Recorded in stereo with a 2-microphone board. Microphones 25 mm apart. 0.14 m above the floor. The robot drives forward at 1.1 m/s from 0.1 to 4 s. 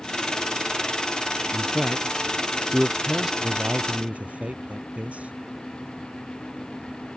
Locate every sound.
1.5 s a man speaking: 15° right (ahead or behind); by 3.3 s 10° right (ahead or behind)
3.4 s a man speaking: 65° right (ahead or behind); by 5.3 s 70° right (ahead or behind)